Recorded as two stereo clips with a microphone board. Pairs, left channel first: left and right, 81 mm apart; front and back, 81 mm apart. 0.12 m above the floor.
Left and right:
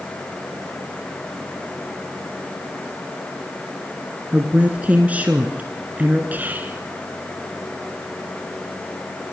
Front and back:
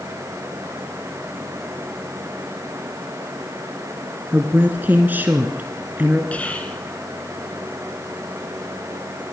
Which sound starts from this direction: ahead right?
Whispering, at 6.3 s.